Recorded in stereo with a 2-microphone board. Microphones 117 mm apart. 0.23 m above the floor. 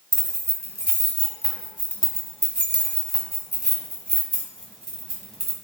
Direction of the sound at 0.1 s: 5° left (ahead or behind).